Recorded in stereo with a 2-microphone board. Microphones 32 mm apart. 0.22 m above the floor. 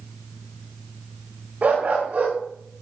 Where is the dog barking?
45° right (ahead or behind), 7 m.